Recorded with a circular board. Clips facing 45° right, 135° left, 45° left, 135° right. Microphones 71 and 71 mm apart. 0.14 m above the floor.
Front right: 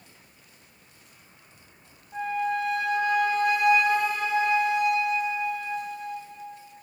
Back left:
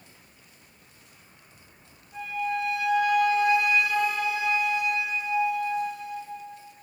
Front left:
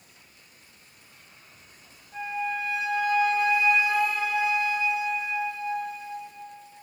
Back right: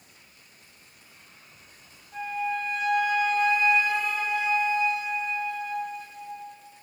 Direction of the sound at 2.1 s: 30° right.